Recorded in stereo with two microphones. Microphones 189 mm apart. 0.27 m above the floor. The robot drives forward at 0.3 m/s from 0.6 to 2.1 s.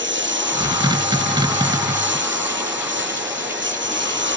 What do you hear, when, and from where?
0.0 s a lawn mower: 80° right